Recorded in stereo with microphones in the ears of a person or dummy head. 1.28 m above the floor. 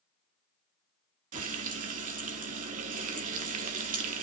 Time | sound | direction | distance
1.3 | frying | 40° right (ahead or behind) | 1.0 m